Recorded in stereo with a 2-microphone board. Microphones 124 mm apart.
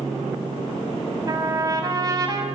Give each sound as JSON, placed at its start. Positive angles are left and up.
{"t": 1.3, "sound": "a trumpet", "side_deg": -30, "distance_m": 4.5}